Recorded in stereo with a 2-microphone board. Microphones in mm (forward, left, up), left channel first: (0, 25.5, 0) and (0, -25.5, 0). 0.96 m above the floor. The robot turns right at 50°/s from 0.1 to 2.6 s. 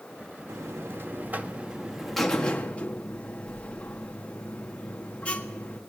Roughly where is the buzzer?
Right.